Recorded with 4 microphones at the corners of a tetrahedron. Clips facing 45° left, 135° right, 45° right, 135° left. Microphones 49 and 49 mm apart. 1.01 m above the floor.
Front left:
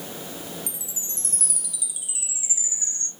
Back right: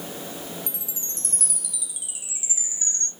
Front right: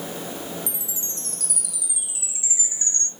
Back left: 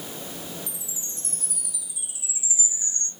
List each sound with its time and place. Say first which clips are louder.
0.7 s a chime: even, front right 4 dB; 45° right, 0.9 m